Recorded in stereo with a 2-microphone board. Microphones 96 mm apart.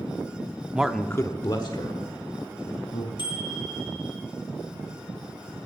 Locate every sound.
0.7 s a man speaking: 15° right (ahead or behind), 0.7 m; by 3.1 s 60° left (ahead or behind), 3 m
3.2 s a bicycle bell: 55° left (ahead or behind), 5.5 m